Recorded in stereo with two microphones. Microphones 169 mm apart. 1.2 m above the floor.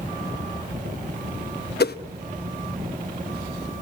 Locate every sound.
1.8 s a whoosh: 65° left (ahead or behind), 0.9 m